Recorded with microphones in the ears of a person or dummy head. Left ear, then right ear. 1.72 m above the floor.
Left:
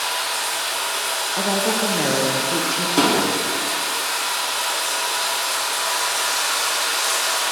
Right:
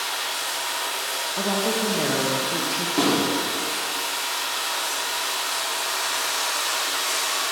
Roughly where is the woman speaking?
Centre.